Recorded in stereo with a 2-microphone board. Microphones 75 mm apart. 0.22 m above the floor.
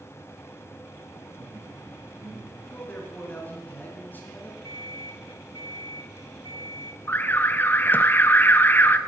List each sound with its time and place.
1.3 s laughter: 35° right (ahead or behind), 5.5 m; by 2.6 s 25° right (ahead or behind), 4 m
2.7 s a man speaking: 25° left (ahead or behind), 3 m
4.6 s an alarm clock: 85° right, 8 m
7.1 s an alarm: 25° left (ahead or behind), 0.9 m